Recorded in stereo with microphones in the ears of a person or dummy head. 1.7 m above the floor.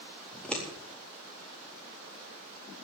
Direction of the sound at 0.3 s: 5° left (ahead or behind).